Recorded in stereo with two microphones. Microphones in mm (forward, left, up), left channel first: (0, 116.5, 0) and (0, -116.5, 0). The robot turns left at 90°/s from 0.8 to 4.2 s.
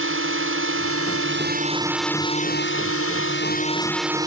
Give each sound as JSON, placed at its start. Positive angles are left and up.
{"t": 0.0, "sound": "a drone", "azimuth_deg": -70}